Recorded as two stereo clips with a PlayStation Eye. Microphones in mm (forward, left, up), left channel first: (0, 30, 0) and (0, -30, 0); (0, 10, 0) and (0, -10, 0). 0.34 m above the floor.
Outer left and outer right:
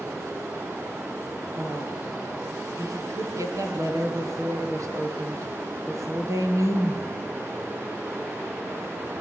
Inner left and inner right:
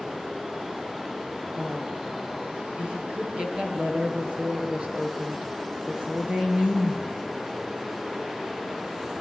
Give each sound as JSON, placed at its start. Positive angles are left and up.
{"t": 1.6, "sound": "a woman speaking", "side_deg": -60, "distance_m": 7.5}